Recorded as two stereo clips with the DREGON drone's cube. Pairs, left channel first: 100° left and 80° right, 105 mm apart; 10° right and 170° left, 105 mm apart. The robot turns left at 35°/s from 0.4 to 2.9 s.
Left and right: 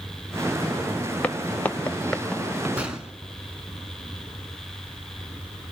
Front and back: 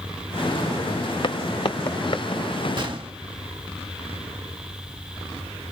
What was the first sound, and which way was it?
Footsteps, 25° left.